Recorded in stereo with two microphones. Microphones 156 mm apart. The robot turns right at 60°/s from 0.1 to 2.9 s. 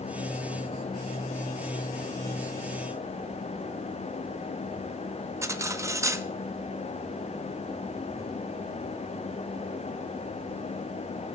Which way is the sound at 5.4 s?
20° right (ahead or behind).